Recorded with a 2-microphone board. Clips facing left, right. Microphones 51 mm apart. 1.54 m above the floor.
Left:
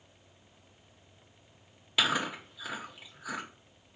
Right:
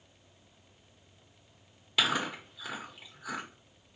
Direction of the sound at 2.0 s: 5° left (ahead or behind).